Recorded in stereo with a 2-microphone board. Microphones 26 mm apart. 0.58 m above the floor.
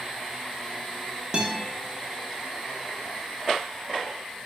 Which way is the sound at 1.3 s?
30° right (ahead or behind).